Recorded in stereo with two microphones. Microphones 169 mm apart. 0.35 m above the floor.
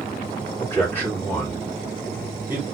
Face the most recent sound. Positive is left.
turn(degrees=-15)  # may be behind; listen again after turning